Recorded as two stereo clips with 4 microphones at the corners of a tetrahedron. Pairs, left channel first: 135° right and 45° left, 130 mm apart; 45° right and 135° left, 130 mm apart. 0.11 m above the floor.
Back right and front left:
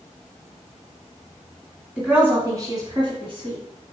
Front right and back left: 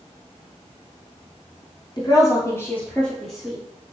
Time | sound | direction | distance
2.0 | a woman speaking | 30° right | 2 m